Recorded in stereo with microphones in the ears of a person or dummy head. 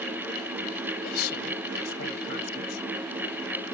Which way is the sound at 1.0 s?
50° left (ahead or behind).